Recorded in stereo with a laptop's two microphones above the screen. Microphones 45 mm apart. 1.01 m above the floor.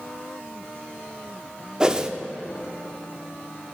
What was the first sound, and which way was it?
A whoosh, 20° right (ahead or behind).